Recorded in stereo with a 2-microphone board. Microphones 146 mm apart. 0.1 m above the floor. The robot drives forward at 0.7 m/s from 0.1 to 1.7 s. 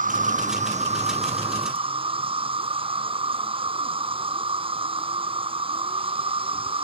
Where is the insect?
65° right (ahead or behind); by 6.8 s 40° right (ahead or behind).